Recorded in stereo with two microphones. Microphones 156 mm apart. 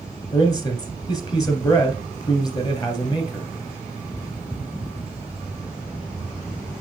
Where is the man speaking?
25° left (ahead or behind), 2.5 m.